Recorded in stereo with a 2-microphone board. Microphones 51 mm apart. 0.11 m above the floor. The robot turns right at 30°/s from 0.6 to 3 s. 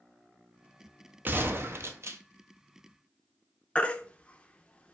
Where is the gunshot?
45° right (ahead or behind), 0.6 m; by 2.2 s 70° right (ahead or behind), 0.6 m.